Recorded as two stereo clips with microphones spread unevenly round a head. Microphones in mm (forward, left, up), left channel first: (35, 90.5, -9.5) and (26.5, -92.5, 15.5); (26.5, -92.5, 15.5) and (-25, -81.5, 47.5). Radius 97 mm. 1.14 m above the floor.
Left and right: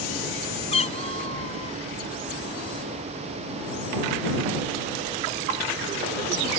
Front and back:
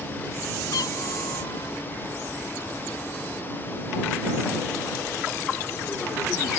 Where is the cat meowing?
30° left.